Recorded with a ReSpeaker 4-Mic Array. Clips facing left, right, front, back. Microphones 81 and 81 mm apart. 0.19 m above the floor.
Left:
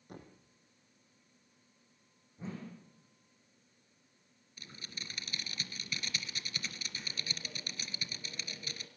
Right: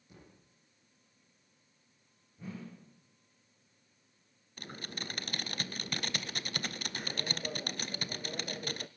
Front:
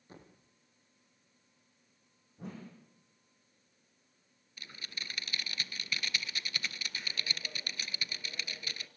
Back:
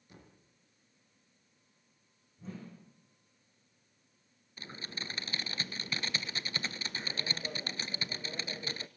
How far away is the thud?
About 4 m.